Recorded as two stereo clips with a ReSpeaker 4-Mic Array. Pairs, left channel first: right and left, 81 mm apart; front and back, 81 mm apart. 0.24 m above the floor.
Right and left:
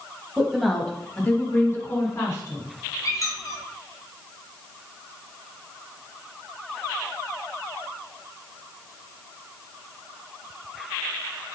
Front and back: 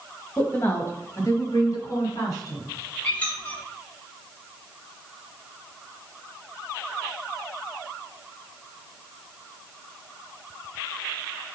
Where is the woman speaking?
25° left, 1.0 m; by 2.6 s 35° right, 2 m.